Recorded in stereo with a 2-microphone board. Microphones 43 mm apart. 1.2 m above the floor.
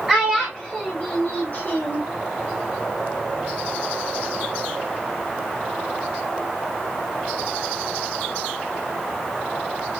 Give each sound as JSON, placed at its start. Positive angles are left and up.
{"t": 0.1, "sound": "a child speaking", "side_deg": 10, "distance_m": 1.3}